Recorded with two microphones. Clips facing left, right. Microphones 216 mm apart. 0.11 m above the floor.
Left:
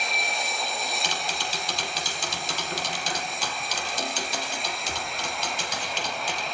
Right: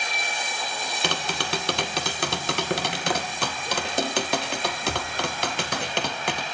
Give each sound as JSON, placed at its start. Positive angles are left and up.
{"t": 1.0, "sound": "tapping", "side_deg": -65, "distance_m": 1.9}